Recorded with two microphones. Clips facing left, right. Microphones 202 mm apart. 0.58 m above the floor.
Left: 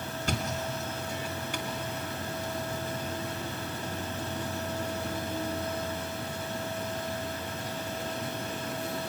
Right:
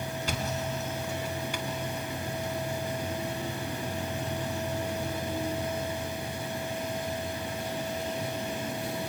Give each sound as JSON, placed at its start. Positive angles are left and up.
{"t": 0.2, "sound": "a thud", "side_deg": 50, "distance_m": 2.5}